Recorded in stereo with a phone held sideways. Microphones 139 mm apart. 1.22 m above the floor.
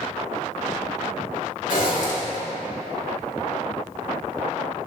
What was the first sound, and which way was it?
A zipper, 70° left (ahead or behind).